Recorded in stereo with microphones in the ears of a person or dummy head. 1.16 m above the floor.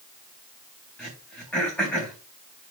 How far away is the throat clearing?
About 4 m.